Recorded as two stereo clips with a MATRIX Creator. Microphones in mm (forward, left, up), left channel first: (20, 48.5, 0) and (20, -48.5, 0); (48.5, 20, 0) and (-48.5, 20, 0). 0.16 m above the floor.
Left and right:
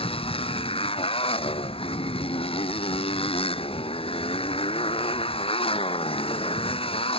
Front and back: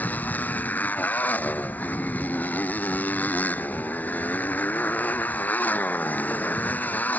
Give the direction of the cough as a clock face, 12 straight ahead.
I don't hear a cough.